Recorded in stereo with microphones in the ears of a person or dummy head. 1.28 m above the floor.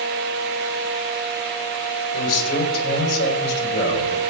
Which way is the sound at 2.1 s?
60° left (ahead or behind).